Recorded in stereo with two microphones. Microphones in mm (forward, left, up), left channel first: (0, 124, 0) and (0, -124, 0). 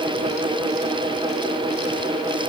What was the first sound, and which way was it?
Only background noise.